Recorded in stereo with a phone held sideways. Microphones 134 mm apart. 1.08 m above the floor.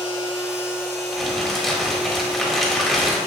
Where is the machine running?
5° right (ahead or behind), 3 m.